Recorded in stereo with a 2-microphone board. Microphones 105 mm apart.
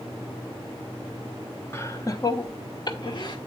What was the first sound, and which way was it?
Laughter, 25° left (ahead or behind).